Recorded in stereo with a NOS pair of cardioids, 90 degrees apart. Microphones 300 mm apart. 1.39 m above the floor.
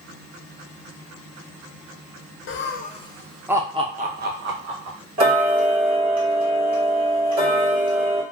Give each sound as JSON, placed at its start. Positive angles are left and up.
{"t": 2.5, "sound": "laughter", "azimuth_deg": 45, "distance_m": 0.7}
{"t": 5.2, "sound": "ticking", "azimuth_deg": -60, "distance_m": 1.4}